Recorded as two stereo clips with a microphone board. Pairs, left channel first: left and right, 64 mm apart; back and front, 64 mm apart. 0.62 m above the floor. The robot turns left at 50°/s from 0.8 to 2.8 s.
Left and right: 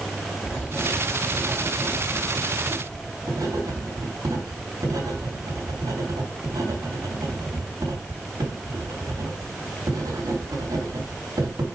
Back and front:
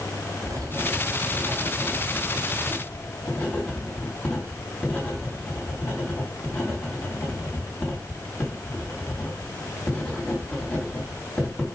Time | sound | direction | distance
0.5 | writing | 15° right | 3.5 m